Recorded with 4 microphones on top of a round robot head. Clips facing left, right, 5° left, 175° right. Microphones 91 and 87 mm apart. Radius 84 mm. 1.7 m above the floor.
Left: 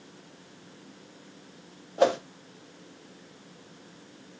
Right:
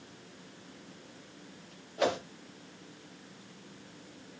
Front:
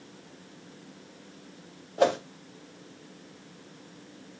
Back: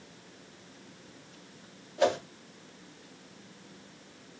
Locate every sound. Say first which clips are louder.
2.0 s a whoosh: left 7 dB, front 3 dB; 40° left, 0.6 m